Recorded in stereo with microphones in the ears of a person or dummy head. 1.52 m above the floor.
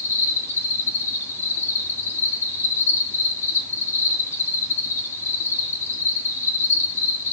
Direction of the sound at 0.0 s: 15° left (ahead or behind).